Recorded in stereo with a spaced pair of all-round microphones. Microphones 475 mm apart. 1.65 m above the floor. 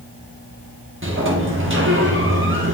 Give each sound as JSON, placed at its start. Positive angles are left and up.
{"t": 1.0, "sound": "a sliding door", "side_deg": -25, "distance_m": 1.0}